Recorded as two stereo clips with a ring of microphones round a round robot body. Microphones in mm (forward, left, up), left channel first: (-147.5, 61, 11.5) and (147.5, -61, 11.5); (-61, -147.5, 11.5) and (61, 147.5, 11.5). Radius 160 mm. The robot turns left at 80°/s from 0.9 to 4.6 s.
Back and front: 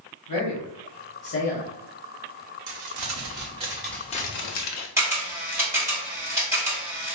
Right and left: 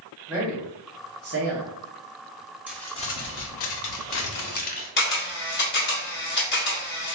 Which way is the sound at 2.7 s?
15° right.